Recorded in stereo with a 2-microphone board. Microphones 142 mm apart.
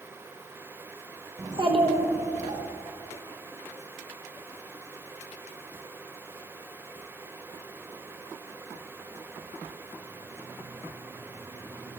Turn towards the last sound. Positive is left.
turn(degrees=-55)  # may be behind; listen again after turning